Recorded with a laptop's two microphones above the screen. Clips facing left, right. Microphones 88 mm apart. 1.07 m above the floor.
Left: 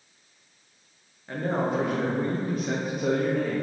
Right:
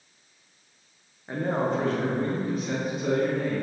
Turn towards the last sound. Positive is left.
turn(degrees=60)  # may be behind; listen again after turning